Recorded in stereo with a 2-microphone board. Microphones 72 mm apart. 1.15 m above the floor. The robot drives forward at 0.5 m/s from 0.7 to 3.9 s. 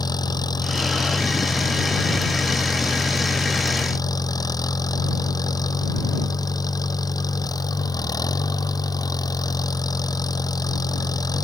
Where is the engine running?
70° left (ahead or behind); by 11.4 s 60° left (ahead or behind).